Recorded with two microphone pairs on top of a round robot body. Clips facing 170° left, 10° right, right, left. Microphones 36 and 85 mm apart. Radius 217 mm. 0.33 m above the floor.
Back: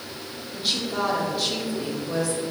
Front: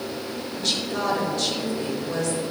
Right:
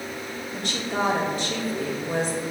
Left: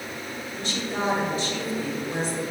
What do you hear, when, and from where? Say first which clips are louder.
0.5 s a woman speaking: back 1 dB, right 2 dB; 110° right, 3 m